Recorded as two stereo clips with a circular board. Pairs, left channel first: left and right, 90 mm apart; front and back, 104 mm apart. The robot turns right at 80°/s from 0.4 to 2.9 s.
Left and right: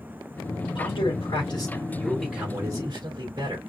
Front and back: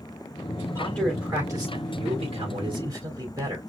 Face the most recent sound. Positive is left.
turn(degrees=-125)